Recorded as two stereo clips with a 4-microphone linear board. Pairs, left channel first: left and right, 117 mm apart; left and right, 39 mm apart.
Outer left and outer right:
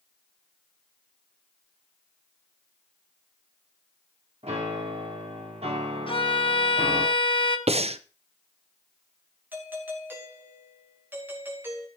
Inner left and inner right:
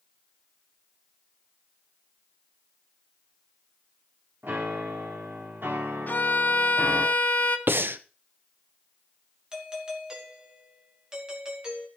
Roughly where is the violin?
Left.